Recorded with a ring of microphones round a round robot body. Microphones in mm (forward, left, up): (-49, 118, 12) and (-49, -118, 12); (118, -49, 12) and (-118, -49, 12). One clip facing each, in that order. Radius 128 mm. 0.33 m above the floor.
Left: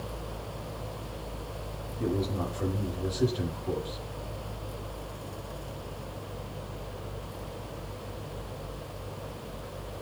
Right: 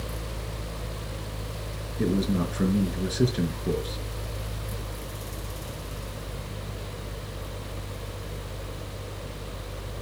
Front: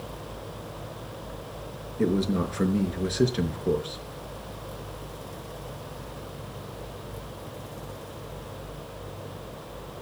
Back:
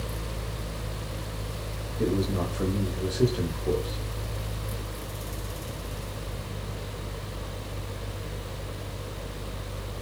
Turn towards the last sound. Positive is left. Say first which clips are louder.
# right 5 dB, front 2 dB
turn(degrees=-65)